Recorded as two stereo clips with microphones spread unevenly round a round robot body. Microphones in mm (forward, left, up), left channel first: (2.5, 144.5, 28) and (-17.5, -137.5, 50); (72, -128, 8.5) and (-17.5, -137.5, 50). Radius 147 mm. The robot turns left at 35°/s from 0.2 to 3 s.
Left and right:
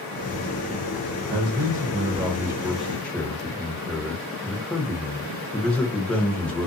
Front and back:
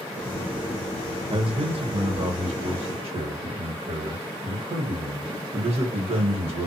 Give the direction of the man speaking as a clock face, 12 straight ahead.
4 o'clock.